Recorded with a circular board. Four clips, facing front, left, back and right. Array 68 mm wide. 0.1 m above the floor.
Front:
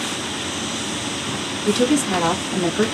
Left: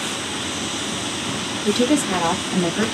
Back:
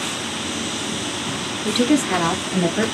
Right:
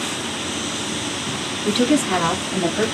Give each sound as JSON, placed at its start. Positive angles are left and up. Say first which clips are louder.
{"t": 1.6, "sound": "a woman speaking", "louder": "right 1 dB, even", "azimuth_deg": -150, "distance_m": 1.2}